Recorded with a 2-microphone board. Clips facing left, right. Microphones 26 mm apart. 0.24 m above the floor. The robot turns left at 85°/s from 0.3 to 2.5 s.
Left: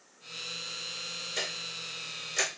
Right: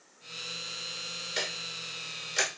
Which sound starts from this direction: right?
Ticking, at 1.4 s.